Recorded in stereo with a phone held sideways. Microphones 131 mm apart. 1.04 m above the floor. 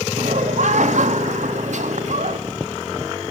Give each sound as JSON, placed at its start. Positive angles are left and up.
{"t": 0.2, "sound": "laughter", "side_deg": -65, "distance_m": 2.0}